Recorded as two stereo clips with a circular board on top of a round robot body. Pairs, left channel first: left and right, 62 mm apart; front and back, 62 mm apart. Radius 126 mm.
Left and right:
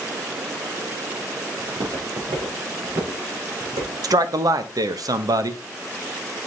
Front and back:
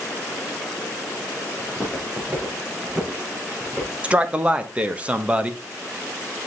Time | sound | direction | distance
1.6 | footsteps | 110° right | 3 m
4.0 | a man speaking | 110° right | 1.0 m